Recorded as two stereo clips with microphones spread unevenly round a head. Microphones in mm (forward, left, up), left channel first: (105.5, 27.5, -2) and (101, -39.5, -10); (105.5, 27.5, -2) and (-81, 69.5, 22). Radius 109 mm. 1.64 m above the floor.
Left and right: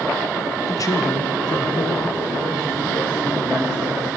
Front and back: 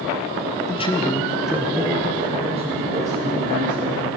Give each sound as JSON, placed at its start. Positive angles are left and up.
{"t": 0.7, "sound": "a man speaking", "azimuth_deg": 45, "distance_m": 1.5}